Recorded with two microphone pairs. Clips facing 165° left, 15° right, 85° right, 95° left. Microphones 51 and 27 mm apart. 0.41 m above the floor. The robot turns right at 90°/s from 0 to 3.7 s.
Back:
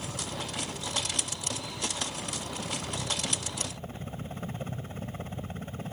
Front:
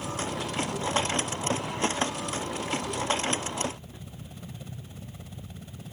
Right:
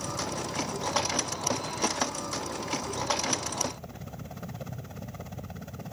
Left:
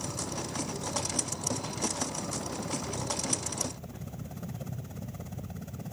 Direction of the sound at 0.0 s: 130° right.